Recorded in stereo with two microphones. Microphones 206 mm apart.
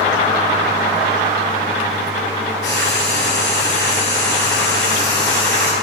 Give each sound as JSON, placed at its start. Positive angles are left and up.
{"t": 2.6, "sound": "frying", "side_deg": 55, "distance_m": 2.5}